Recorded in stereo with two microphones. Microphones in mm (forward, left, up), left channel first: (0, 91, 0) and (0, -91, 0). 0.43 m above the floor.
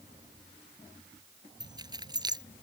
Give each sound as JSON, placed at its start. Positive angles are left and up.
{"t": 1.6, "sound": "keys jangling", "side_deg": -20}